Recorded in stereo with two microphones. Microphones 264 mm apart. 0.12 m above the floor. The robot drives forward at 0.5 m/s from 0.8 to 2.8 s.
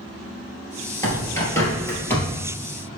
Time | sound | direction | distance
1.0 | a bird | 10° left (ahead or behind) | 2.5 m